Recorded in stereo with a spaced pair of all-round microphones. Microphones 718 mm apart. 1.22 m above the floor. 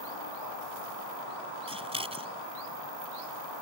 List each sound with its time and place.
1.7 s scissors: 10° right (ahead or behind)